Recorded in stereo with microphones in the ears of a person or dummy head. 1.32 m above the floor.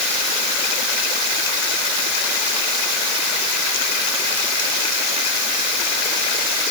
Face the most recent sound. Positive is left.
No sound to turn to.